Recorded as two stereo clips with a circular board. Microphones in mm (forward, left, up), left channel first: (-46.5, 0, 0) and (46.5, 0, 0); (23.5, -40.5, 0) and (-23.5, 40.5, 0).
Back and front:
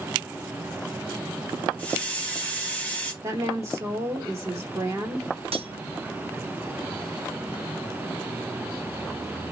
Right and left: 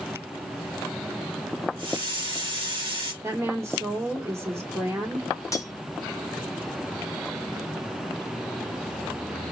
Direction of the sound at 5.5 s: 5° right.